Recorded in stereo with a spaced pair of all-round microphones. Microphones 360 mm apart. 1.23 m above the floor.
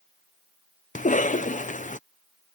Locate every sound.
0.9 s a cough: 20° left (ahead or behind)